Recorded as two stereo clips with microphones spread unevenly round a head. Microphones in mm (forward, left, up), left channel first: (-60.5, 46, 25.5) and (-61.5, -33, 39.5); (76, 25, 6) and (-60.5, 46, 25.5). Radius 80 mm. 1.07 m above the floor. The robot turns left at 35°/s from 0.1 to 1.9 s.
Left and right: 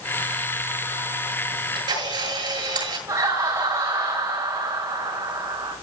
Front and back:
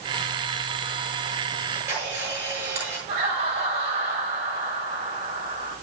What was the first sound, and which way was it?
A camera shutter, 100° right.